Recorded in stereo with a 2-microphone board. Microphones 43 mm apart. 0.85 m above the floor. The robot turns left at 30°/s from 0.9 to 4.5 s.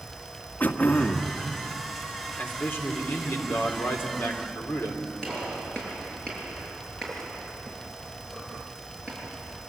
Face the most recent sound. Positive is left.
turn(degrees=15)  # may be behind; listen again after turning